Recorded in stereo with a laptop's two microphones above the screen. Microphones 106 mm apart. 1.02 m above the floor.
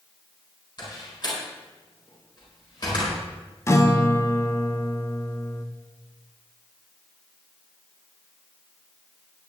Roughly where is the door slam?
Left.